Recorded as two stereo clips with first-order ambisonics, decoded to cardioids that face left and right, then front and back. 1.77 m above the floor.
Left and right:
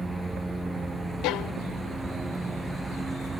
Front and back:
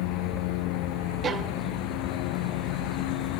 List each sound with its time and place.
0.0 s a lawn mower: 5° right
1.2 s a violin: 115° left